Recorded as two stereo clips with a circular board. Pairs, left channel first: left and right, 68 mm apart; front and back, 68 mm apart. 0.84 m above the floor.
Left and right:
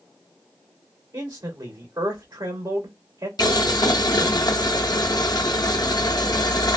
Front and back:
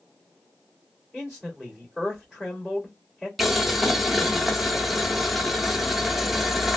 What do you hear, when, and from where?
1.1 s a man speaking: 100° right, 1.9 m
3.4 s boiling: 90° left, 0.6 m